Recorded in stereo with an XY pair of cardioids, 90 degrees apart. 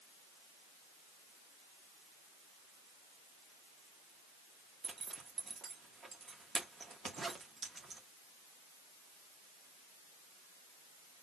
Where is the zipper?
40° right, 1.8 m.